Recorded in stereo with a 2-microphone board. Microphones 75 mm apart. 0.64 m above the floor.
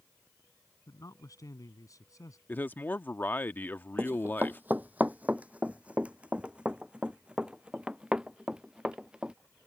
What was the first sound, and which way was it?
A man speaking, 50° left (ahead or behind).